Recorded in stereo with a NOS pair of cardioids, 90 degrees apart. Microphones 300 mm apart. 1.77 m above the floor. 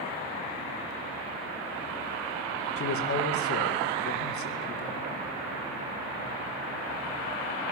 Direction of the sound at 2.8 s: 50° left.